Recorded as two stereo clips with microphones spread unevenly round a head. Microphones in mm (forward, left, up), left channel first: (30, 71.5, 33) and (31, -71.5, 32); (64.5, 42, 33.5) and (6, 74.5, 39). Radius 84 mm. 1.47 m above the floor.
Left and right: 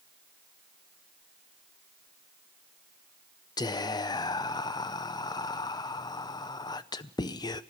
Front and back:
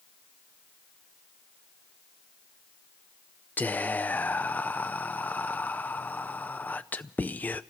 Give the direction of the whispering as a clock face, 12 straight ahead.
11 o'clock.